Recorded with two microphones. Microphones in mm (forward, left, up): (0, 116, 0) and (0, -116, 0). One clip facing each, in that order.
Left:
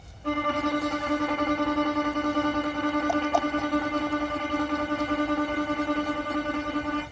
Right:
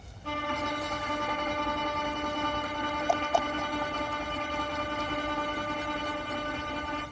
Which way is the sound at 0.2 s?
75° left (ahead or behind).